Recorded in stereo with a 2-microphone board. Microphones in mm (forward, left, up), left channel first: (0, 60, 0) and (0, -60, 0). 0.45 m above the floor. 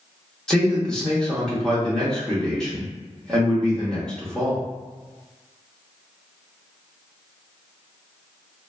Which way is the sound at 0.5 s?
5° left (ahead or behind).